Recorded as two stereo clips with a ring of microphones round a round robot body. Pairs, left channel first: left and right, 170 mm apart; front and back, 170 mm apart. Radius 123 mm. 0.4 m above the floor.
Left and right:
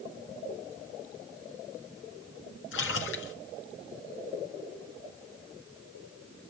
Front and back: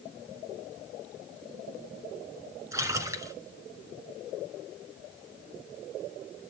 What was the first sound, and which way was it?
A splash, 105° left.